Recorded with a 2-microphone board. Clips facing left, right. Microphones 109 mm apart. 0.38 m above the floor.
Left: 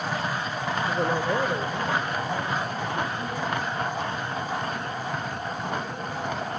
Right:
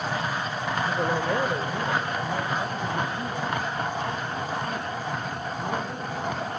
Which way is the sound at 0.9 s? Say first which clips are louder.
Left 1 dB; 15° left (ahead or behind).